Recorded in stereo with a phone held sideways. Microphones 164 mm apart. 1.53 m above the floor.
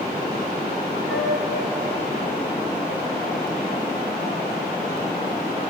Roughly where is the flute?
Right.